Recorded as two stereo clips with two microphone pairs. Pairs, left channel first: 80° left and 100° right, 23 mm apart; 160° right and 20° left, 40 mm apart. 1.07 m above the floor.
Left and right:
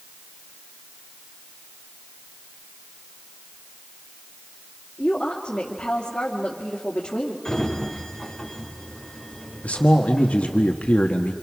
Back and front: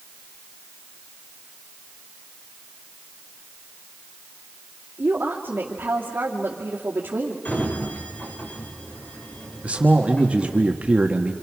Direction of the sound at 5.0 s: 50° left.